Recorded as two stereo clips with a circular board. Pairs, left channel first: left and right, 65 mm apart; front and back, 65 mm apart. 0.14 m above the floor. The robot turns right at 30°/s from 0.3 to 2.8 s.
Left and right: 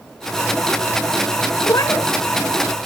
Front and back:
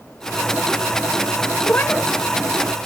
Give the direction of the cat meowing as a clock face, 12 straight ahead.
10 o'clock.